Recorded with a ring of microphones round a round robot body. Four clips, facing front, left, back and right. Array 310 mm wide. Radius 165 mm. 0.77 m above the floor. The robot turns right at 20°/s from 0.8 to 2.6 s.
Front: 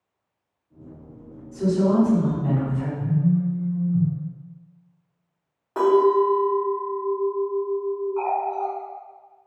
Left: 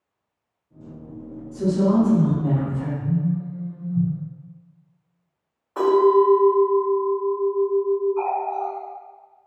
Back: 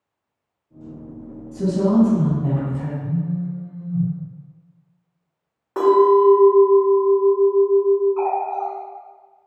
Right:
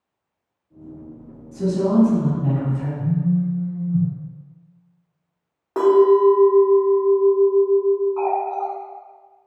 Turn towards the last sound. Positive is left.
turn(degrees=-110)